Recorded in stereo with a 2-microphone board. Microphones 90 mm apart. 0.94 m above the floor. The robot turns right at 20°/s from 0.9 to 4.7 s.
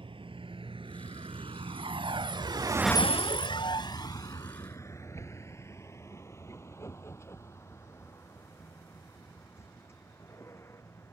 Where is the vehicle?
80° right; by 11.1 s 30° left (ahead or behind).